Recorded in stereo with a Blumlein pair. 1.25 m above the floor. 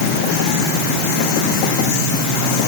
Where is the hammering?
No hammering in this recording.